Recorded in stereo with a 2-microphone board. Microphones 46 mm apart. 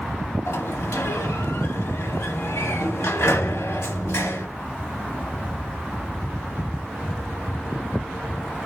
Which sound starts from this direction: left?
A sliding door, at 0.5 s.